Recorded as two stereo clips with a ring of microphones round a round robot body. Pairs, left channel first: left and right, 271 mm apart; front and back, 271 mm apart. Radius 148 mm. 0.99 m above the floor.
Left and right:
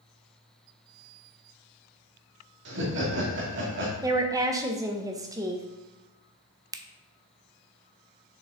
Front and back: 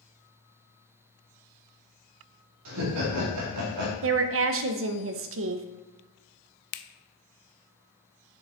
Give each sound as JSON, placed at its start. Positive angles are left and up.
{"t": 2.6, "sound": "laughter", "azimuth_deg": -145, "distance_m": 1.9}
{"t": 4.0, "sound": "a woman speaking", "azimuth_deg": -165, "distance_m": 0.5}
{"t": 6.7, "sound": "a finger snap", "azimuth_deg": -10, "distance_m": 0.5}